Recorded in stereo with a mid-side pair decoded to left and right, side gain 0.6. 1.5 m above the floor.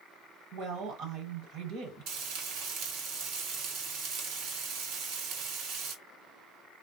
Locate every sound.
0.5 s a woman speaking: 65° right, 1.3 m
2.1 s frying: 70° right, 1.2 m